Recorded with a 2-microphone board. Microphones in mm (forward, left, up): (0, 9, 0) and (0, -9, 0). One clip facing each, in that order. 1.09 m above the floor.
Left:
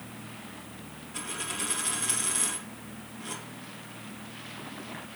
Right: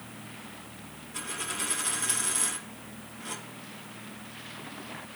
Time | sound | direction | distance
1.1 | a dropped coin | centre (ahead or behind) | 2.5 m